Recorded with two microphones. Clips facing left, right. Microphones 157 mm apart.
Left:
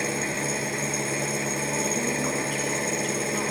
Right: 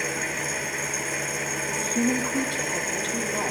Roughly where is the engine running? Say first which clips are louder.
Left 3 dB; left.